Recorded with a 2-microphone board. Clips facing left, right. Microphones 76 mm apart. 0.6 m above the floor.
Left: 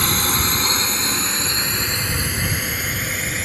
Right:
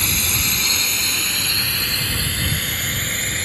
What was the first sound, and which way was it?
A drone, 45° left (ahead or behind).